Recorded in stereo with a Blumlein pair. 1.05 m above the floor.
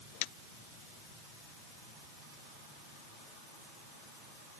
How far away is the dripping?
No dripping in this recording.